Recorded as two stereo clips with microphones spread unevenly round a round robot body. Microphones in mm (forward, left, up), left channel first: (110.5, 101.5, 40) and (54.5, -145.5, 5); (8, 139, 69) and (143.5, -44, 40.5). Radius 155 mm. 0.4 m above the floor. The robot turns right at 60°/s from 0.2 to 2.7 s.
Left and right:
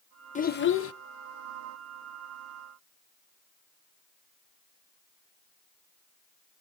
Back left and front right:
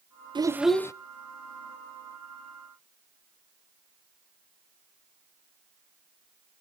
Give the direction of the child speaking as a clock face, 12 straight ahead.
12 o'clock.